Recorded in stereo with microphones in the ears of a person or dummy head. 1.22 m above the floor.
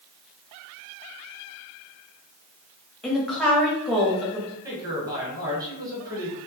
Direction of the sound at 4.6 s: 15° right (ahead or behind).